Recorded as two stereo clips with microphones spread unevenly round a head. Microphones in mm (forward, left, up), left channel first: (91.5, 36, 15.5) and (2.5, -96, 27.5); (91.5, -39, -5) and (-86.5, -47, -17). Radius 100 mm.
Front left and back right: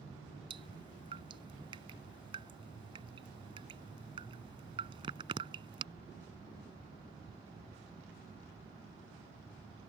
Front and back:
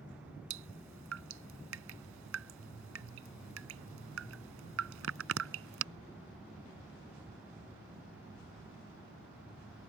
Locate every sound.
0.5 s dripping: 170° left